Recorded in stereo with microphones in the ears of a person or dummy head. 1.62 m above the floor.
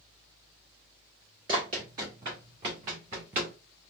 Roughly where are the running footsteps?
Centre.